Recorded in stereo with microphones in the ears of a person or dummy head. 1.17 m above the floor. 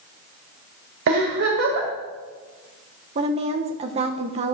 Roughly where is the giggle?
Right.